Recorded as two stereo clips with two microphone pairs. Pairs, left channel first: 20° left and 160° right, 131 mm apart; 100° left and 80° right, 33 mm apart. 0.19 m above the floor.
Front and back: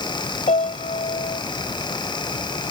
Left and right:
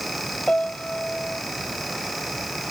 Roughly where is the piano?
Ahead left.